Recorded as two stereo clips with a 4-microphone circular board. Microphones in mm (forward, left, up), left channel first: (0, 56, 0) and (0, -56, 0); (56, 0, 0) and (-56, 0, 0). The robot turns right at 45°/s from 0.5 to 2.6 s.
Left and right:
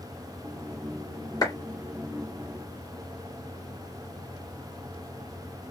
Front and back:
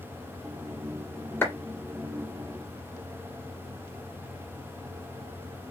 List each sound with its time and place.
1.4 s a clap: 65° left, 1.7 m